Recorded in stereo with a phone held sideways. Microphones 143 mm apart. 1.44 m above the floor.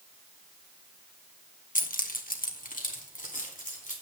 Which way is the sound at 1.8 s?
70° left (ahead or behind).